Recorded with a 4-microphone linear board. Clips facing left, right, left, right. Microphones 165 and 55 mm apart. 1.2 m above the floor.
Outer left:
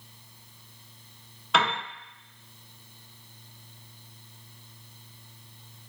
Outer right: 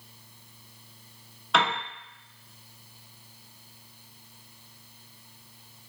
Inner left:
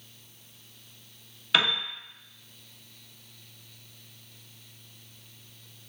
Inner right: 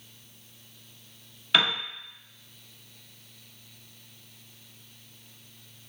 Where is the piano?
Centre (ahead or behind), 0.7 m.